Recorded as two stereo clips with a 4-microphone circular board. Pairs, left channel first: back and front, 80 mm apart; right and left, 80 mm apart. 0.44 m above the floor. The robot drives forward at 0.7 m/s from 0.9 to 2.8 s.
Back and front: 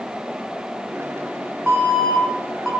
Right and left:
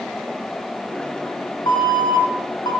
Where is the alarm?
75° right, 3 m; by 2.7 s 90° right, 3 m.